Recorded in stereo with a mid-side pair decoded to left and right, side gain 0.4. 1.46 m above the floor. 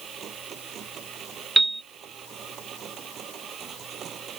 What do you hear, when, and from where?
0.0 s a machine running: 65° right
1.6 s a piano: 10° right